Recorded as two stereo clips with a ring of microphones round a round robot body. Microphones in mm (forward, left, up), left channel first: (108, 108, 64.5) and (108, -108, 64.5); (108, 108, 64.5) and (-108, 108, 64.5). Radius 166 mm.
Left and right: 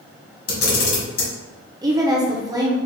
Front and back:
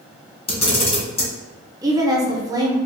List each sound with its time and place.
0.5 s a camera shutter: 65° left, 1.7 m
1.8 s a woman speaking: 135° right, 0.8 m